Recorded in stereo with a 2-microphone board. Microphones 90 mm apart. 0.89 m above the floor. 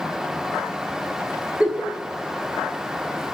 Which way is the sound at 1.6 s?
15° right (ahead or behind).